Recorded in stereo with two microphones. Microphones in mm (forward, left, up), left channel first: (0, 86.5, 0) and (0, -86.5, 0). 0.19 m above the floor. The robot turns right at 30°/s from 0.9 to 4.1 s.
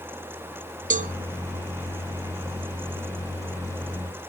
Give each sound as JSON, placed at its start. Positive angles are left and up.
{"t": 0.9, "sound": "a cowbell", "side_deg": -50, "distance_m": 0.6}